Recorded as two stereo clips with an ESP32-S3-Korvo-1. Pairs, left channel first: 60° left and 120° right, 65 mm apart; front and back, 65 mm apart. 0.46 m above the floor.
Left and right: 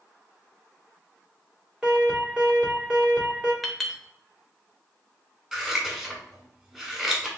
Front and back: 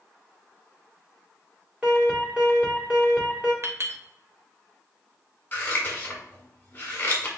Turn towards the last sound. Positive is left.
turn(degrees=-45)